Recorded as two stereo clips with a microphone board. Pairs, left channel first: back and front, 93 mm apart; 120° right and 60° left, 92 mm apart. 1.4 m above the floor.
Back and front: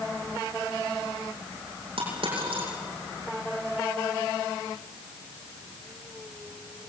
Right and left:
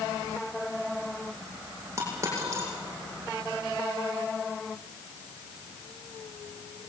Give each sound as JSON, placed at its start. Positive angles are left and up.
{"t": 2.0, "sound": "a dropped coin", "azimuth_deg": 0, "distance_m": 8.5}